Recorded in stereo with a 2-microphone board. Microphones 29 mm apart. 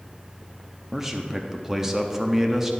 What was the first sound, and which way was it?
A man speaking, 15° right (ahead or behind).